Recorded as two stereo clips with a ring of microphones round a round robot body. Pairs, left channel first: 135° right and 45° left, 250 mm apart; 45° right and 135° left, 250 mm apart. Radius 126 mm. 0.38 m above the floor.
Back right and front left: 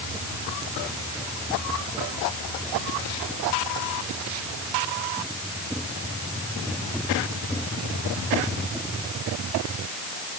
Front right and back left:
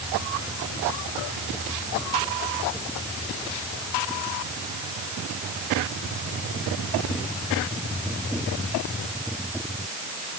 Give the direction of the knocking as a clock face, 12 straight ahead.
I don't hear knocking.